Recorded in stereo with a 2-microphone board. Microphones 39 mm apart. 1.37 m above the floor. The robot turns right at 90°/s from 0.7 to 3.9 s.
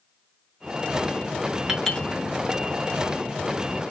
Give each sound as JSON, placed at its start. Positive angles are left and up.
{"t": 1.7, "sound": "a clink", "side_deg": -5, "distance_m": 2.5}